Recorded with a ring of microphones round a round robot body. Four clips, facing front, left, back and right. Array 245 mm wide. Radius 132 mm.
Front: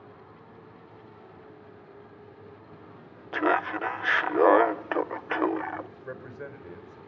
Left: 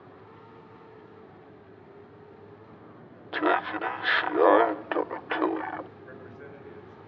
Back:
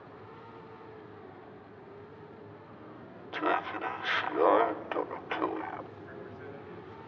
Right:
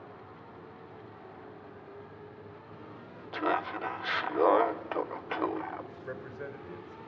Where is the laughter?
40° left, 0.6 m.